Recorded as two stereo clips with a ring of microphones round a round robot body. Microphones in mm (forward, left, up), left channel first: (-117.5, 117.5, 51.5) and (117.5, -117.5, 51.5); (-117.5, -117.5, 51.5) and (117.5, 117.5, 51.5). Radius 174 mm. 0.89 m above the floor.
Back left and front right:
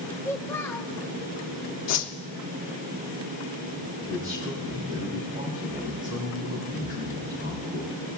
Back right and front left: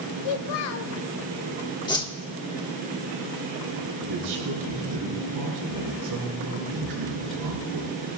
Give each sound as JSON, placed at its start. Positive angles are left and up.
{"t": 0.2, "sound": "a child speaking", "azimuth_deg": -140, "distance_m": 0.6}
{"t": 1.9, "sound": "a whoosh", "azimuth_deg": 150, "distance_m": 1.1}
{"t": 4.0, "sound": "a man speaking", "azimuth_deg": 20, "distance_m": 5.0}